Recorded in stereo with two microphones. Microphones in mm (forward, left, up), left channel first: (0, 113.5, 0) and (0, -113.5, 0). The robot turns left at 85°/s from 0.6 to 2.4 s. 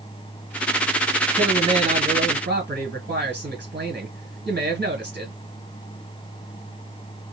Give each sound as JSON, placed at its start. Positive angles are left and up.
{"t": 1.3, "sound": "a man speaking", "azimuth_deg": -5, "distance_m": 2.0}